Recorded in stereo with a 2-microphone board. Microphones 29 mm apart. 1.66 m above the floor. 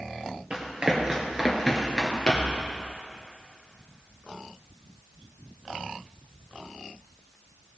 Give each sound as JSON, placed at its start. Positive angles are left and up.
{"t": 0.5, "sound": "running footsteps", "side_deg": -35, "distance_m": 2.0}